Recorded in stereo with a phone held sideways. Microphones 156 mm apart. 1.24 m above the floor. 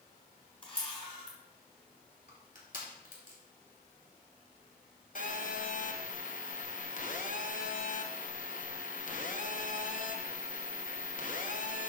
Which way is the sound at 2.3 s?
60° left (ahead or behind).